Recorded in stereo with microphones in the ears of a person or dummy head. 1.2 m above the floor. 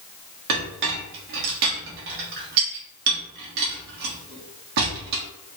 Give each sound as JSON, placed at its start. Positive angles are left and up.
{"t": 0.5, "sound": "a clink", "side_deg": -65, "distance_m": 1.3}